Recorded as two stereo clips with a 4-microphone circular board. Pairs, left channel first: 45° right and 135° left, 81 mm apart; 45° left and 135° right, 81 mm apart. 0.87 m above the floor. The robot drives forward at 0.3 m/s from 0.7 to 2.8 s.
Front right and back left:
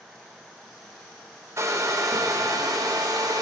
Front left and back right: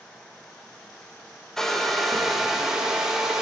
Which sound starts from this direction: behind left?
A hair dryer, at 1.6 s.